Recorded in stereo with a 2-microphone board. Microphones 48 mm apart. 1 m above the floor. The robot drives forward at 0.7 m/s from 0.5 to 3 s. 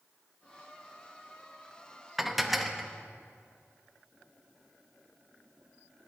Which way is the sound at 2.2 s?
5° right (ahead or behind).